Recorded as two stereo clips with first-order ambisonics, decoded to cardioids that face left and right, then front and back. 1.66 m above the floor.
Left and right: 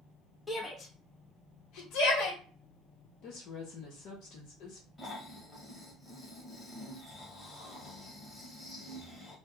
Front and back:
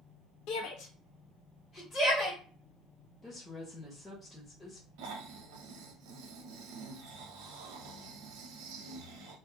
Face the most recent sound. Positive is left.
turn(degrees=170)